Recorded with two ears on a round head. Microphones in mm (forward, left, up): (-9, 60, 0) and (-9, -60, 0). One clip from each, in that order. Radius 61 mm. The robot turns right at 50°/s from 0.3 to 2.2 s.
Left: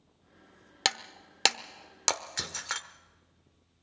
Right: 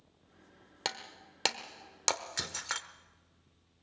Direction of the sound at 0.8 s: 50° left (ahead or behind).